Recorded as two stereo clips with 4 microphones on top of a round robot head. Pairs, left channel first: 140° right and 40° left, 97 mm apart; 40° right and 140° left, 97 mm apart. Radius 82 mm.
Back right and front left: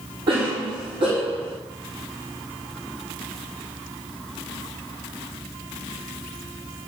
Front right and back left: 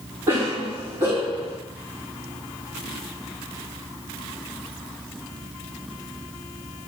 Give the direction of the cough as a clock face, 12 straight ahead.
9 o'clock.